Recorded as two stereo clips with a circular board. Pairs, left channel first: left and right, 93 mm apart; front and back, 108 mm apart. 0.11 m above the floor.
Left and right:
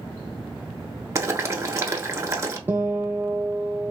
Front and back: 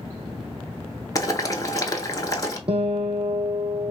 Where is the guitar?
155° right, 0.8 m.